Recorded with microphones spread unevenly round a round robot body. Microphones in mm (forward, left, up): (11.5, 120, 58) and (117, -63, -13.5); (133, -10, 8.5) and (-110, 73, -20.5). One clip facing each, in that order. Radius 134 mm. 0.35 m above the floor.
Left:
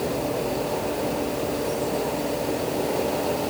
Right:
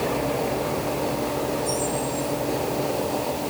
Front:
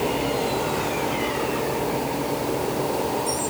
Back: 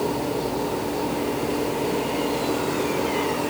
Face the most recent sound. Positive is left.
No sound to turn to.